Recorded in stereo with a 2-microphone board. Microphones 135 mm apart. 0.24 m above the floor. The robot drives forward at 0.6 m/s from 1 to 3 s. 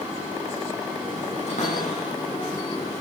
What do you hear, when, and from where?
1.5 s a cupboard door: 55° left (ahead or behind), 7 m; by 2.5 s 60° left (ahead or behind), 6.5 m